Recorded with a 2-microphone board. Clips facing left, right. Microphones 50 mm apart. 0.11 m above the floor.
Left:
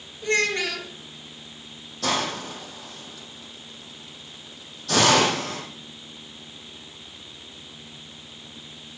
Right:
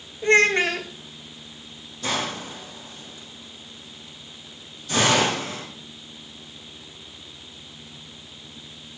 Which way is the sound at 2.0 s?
70° left (ahead or behind).